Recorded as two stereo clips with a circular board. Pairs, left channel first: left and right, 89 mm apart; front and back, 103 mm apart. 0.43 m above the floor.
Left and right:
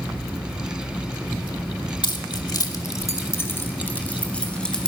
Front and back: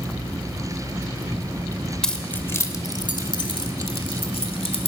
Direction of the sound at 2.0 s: 85° left.